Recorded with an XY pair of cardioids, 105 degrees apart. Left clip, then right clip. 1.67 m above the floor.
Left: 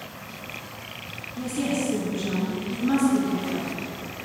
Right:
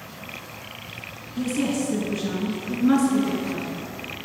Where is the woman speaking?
40° right, 2 m.